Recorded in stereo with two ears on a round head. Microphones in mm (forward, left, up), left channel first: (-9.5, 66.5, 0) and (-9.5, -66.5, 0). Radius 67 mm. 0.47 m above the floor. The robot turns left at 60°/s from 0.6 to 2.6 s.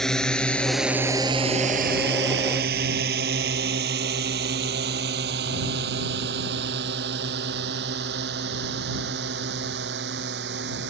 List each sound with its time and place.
0.0 s a drone: 5° left (ahead or behind); by 10.9 s 85° right